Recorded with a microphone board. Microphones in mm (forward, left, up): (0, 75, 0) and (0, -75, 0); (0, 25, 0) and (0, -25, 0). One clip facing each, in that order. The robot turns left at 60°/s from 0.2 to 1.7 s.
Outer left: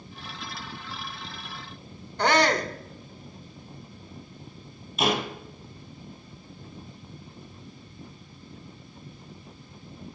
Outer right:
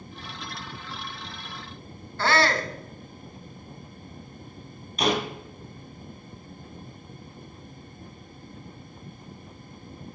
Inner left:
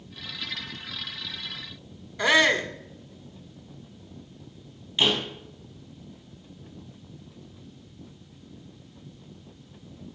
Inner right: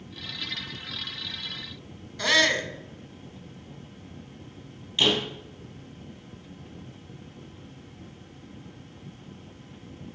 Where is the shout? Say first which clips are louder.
Outer left 2 dB, inner left 2 dB; 20° left (ahead or behind), 1.0 m.